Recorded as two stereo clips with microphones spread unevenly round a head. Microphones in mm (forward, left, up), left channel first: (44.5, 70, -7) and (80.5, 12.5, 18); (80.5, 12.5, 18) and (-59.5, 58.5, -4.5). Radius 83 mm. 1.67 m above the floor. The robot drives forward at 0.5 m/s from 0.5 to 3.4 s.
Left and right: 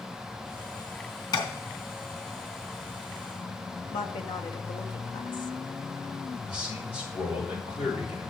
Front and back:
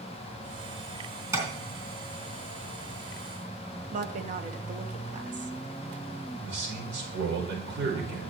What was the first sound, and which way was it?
Tapping, 85° left.